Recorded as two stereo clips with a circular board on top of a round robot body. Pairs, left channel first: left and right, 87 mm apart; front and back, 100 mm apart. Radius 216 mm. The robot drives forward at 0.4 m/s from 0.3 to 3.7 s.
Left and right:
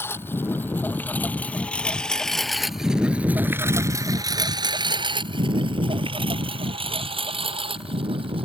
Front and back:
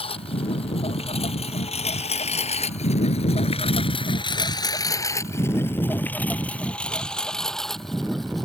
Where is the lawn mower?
25° left; by 8.5 s 90° right.